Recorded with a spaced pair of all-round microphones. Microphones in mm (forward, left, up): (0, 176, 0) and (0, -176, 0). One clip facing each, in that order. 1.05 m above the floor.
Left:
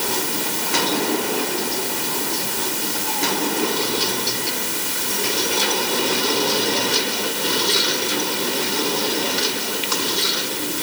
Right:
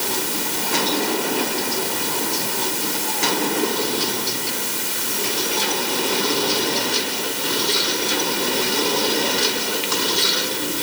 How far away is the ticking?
I don't hear ticking.